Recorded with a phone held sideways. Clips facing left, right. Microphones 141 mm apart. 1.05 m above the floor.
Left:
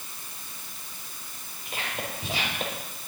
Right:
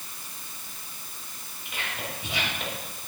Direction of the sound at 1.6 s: 40° left (ahead or behind).